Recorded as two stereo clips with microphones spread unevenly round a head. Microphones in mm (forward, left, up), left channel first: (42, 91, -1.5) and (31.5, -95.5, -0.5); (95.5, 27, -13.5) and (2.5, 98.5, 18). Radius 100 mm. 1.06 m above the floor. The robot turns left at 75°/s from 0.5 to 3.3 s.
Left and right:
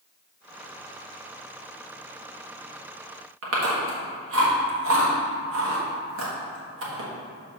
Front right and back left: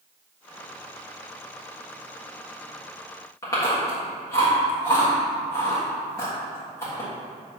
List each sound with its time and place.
3.4 s chewing: 105° right, 1.4 m